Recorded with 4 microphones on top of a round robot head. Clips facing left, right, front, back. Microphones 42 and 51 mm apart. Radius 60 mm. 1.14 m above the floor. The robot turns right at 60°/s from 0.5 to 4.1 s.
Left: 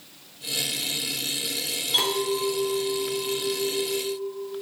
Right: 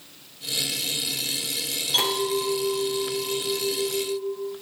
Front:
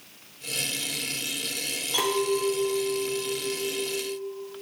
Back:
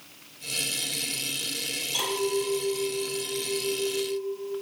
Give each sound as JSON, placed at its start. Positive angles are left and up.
{"t": 1.9, "sound": "a clink", "azimuth_deg": 0, "distance_m": 2.0}